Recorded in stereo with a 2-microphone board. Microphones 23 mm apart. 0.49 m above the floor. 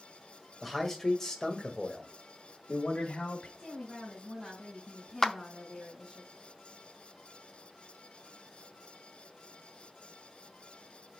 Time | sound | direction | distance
0.6 | a man speaking | 5° left (ahead or behind) | 1.8 m
3.6 | a woman speaking | 10° left (ahead or behind) | 3 m
5.2 | a clap | 20° left (ahead or behind) | 0.5 m